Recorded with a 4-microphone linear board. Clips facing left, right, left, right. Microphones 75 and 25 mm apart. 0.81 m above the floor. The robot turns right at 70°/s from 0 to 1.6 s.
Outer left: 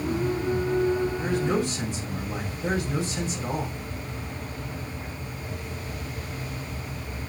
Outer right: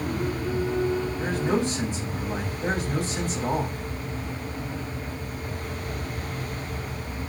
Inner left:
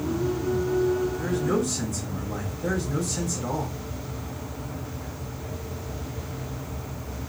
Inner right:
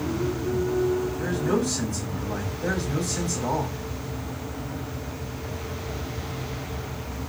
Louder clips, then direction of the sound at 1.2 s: Even, even; 50° right (ahead or behind).